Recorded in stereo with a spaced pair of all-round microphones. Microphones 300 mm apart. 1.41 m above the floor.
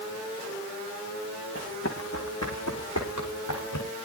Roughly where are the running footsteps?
Left.